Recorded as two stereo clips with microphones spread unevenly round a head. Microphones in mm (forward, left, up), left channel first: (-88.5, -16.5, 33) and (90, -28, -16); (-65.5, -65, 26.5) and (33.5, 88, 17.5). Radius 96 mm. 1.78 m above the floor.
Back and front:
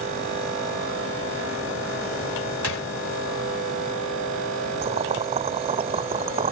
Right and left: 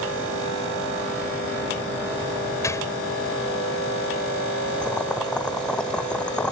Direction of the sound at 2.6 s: 165° left.